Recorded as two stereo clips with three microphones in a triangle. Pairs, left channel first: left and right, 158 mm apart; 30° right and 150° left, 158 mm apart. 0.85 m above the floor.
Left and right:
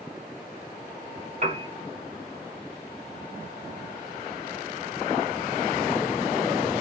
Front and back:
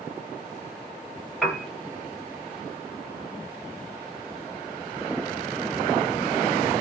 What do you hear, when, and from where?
1.4 s a piano: 120° right, 1.0 m